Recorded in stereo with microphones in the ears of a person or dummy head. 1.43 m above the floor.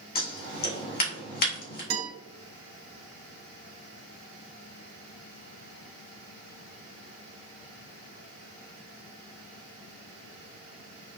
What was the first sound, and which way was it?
Scissors, 45° left (ahead or behind).